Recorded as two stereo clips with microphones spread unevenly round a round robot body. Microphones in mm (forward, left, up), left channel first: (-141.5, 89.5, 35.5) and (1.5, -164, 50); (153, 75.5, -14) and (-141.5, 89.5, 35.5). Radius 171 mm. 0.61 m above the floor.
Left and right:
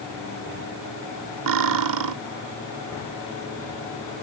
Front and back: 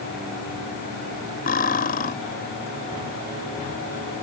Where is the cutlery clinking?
70° right.